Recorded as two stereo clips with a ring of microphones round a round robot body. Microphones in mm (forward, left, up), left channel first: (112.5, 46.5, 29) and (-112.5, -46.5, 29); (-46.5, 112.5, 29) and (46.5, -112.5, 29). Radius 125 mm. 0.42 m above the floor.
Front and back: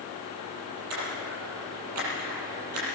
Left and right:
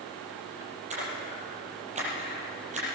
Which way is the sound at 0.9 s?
130° right.